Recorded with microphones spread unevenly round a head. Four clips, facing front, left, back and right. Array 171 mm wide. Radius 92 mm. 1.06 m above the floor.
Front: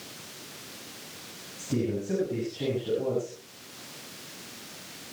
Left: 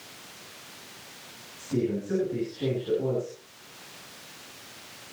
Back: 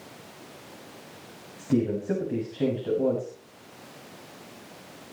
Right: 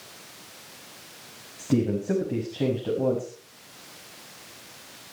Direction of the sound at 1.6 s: 120° right.